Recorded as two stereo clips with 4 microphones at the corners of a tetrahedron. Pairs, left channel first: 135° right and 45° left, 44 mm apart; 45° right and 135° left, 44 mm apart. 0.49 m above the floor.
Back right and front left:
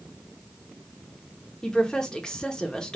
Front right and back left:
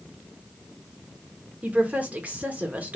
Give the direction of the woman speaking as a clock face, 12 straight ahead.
7 o'clock.